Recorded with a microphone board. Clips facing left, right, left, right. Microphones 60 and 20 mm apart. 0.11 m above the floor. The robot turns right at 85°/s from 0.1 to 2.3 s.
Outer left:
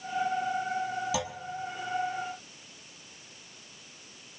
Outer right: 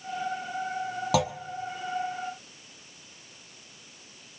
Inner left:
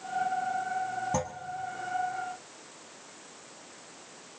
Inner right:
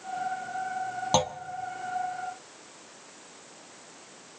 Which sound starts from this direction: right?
A clunk, at 1.1 s.